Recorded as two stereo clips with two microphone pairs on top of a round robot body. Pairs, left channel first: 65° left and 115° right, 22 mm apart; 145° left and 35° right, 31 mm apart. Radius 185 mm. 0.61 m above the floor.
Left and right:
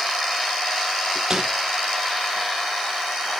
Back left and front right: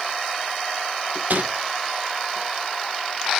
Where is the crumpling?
55° right, 2 m.